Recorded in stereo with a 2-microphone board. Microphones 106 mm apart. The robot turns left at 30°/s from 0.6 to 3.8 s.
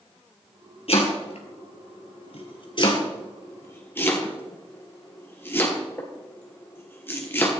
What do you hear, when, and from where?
0.9 s chopping: 60° left (ahead or behind), 2 m; by 7.5 s 20° left (ahead or behind), 2 m